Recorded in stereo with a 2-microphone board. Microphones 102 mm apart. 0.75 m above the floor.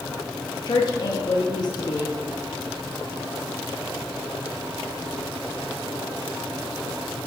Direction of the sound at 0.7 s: 45° left (ahead or behind).